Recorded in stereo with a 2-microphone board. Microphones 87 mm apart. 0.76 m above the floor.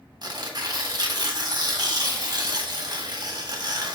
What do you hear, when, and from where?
0.2 s tearing paper: 50° right (ahead or behind), 1.5 m